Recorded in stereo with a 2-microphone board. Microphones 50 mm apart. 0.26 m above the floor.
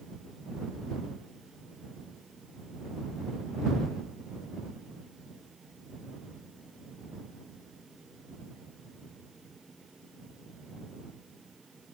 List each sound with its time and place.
Only background noise.